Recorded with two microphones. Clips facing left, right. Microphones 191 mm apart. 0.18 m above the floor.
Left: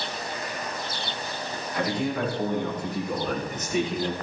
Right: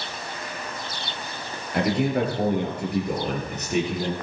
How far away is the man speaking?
About 4 m.